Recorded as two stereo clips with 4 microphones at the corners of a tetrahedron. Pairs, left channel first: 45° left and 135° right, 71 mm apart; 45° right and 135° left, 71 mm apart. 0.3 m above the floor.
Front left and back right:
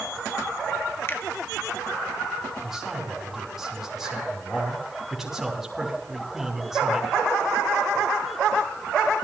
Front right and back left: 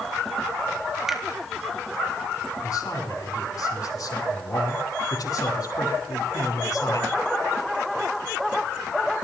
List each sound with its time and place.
1.1 s a finger snap: 55° left, 1.6 m
2.6 s a man speaking: 50° right, 3 m